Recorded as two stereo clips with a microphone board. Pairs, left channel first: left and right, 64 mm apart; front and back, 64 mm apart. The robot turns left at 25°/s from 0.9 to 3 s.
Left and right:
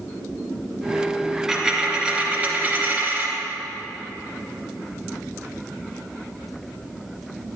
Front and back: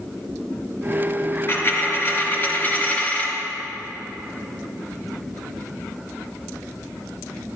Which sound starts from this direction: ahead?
A dropped coin, at 1.5 s.